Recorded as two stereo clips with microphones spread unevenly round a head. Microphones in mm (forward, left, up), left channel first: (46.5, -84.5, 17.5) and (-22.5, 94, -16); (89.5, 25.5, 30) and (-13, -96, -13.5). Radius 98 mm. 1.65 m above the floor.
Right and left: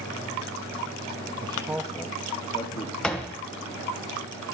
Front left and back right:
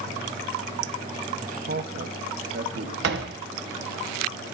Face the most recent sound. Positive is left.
turn(degrees=-145)